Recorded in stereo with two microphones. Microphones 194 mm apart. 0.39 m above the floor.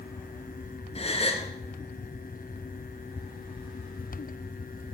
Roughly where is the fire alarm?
I don't hear a fire alarm.